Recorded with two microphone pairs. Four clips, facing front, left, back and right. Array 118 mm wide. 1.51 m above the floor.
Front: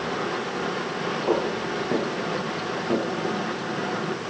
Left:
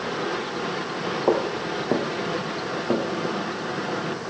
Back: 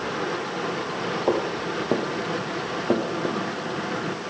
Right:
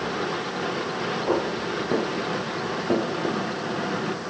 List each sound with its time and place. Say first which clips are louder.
1.3 s footsteps: left 3 dB, even; 120° left, 2 m; by 3.4 s straight behind, 1.9 m